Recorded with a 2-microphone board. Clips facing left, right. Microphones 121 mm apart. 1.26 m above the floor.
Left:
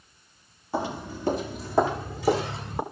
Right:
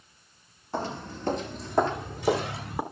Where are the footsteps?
5° left (ahead or behind), 1.3 m; by 2.8 s centre (ahead or behind), 1.5 m.